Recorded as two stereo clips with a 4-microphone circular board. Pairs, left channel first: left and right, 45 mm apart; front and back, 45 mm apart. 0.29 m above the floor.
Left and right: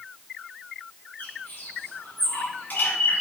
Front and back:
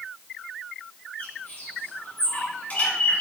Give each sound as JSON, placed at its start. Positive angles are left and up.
{"t": 1.2, "sound": "a bird", "azimuth_deg": 45, "distance_m": 2.5}